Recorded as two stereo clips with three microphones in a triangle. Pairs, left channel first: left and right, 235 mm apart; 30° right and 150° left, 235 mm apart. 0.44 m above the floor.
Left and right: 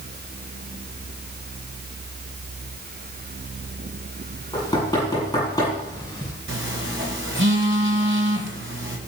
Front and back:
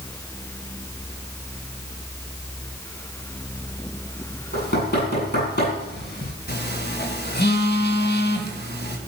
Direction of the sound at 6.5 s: 70° right.